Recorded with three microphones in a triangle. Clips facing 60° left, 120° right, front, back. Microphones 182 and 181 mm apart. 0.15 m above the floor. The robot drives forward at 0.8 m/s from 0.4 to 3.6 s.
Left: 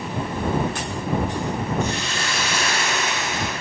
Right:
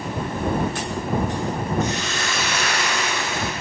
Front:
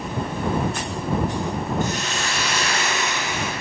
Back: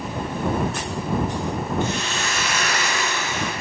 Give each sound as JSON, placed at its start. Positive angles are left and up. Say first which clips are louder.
{"t": 1.8, "sound": "a hiss", "louder": "right 1 dB, even", "azimuth_deg": 15, "distance_m": 2.0}